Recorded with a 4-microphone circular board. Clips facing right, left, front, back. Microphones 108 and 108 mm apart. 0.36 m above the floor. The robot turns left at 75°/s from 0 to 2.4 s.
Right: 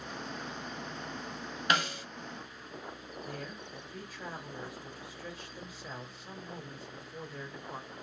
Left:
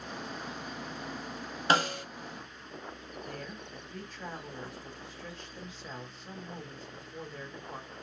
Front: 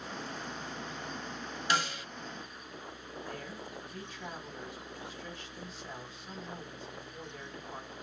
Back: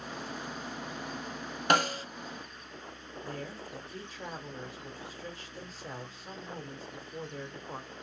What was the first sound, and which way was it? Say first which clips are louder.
A snare drum: left 4 dB, back 6 dB; 145° left.